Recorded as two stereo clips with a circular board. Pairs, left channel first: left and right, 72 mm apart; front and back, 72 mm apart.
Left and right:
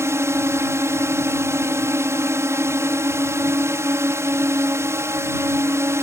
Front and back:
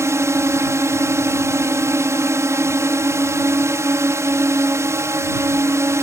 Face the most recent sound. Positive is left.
turn(degrees=-135)